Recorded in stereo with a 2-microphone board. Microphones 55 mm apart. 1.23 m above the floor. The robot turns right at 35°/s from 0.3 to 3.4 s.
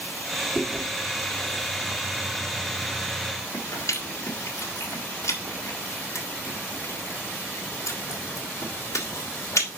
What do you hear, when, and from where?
0.6 s chewing: 15° right (ahead or behind), 1.7 m; by 9.7 s 75° left (ahead or behind), 1.7 m